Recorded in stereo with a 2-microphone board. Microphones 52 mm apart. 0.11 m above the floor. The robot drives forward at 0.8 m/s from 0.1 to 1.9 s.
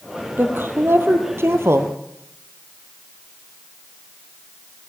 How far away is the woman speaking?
About 3.5 m.